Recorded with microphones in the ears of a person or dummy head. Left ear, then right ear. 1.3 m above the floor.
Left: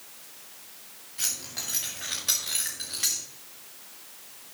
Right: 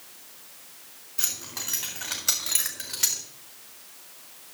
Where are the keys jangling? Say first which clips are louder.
Even; 25° right (ahead or behind), 2.5 m; by 3.2 s 15° right (ahead or behind), 1.1 m.